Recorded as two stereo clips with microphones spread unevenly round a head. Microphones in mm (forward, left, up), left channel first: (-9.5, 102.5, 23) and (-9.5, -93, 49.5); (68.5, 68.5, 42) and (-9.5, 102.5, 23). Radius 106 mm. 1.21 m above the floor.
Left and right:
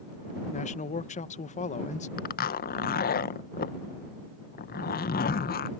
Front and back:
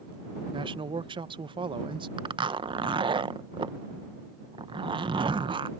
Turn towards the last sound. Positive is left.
turn(degrees=135)